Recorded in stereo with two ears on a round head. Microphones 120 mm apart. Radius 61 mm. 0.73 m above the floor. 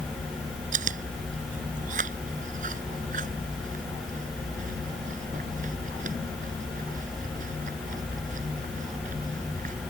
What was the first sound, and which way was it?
Chewing, 65° right (ahead or behind).